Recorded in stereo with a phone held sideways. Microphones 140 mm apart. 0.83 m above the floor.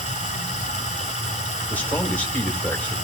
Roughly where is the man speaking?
Centre.